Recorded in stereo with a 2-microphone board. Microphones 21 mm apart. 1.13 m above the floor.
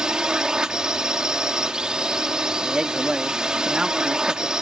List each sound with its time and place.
0.0 s a drone: 40° right (ahead or behind)
2.6 s a man speaking: 40° right (ahead or behind)